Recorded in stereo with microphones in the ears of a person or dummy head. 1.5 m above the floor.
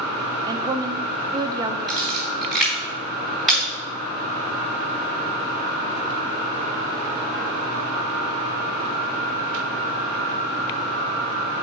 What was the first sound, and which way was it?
A woman speaking, 20° right (ahead or behind).